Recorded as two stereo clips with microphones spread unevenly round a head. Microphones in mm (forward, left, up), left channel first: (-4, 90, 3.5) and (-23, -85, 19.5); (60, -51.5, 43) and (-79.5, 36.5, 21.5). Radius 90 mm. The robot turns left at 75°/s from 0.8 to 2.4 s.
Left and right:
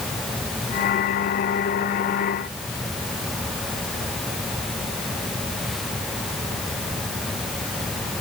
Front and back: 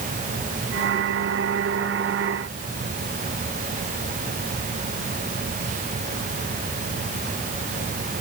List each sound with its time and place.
Only background noise.